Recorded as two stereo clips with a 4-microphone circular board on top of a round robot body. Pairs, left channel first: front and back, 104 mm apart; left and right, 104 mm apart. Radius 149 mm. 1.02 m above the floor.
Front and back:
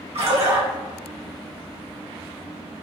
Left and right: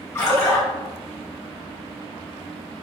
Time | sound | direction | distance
0.1 | a splash | 155° left | 1.5 m